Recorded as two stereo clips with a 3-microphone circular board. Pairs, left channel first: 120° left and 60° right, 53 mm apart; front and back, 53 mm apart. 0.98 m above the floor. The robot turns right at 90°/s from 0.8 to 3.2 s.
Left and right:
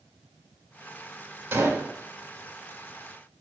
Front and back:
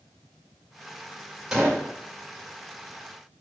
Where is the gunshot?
95° right, 2.5 m; by 1.9 s 60° right, 2.5 m.